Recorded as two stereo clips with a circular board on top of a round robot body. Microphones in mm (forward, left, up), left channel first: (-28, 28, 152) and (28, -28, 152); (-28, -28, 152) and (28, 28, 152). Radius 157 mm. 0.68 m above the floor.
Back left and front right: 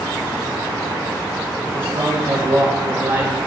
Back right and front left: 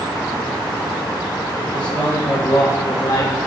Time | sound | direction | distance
1.7 | a man speaking | 60° right | 2.5 m